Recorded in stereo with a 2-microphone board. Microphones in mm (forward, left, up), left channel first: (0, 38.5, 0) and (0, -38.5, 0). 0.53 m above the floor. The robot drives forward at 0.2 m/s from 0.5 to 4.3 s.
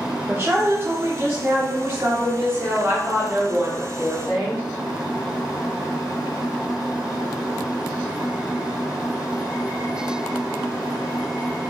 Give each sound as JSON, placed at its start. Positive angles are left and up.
{"t": 0.3, "sound": "a woman speaking", "side_deg": -35, "distance_m": 0.8}